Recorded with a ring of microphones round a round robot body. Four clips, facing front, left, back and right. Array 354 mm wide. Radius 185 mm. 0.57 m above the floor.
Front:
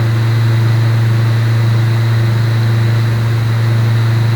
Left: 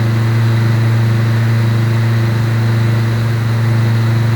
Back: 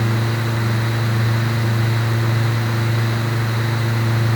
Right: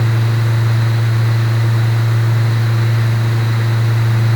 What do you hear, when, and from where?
Only background noise.